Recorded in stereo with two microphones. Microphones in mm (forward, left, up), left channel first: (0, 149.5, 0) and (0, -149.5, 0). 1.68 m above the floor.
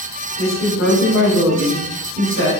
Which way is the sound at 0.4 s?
40° left (ahead or behind).